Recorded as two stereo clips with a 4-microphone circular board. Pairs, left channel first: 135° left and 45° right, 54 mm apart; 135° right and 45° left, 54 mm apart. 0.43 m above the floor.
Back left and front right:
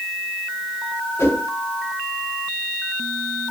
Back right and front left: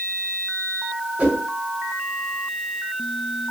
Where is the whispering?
No whispering in this recording.